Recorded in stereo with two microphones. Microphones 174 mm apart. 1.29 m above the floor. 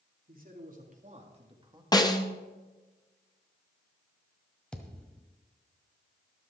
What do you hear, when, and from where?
0.3 s a man speaking: 55° right (ahead or behind), 2.5 m; by 1.8 s 20° right (ahead or behind), 1.5 m
1.9 s a snare drum: 20° left (ahead or behind), 0.9 m
4.7 s a thud: 5° left (ahead or behind), 1.6 m